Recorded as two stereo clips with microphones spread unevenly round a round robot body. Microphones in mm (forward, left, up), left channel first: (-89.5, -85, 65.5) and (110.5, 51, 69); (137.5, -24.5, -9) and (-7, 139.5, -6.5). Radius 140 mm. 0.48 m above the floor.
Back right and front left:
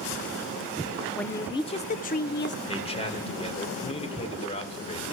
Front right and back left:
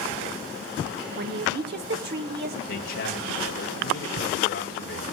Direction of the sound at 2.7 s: 85° right.